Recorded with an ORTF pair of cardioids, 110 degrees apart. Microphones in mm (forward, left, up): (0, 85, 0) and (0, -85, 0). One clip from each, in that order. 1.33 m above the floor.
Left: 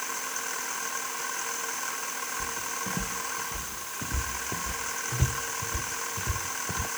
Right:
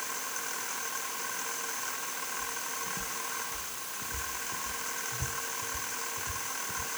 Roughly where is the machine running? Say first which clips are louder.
Left 3 dB; ahead left.